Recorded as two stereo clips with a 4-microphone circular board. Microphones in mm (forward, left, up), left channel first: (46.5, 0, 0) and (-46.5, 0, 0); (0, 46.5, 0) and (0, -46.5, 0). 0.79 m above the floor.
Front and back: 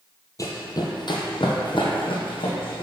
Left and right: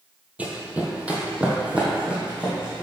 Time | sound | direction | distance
0.4 | running footsteps | 25° right | 1.0 m